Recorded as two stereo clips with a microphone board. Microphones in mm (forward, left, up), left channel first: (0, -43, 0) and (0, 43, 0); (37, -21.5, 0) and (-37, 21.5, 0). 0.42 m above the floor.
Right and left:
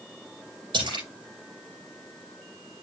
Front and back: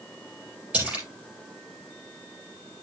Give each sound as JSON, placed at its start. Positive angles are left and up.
{"t": 0.7, "sound": "a splash", "azimuth_deg": 75, "distance_m": 4.0}